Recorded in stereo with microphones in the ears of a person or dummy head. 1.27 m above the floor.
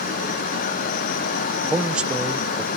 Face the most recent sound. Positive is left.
turn(degrees=-10)  # may be behind; listen again after turning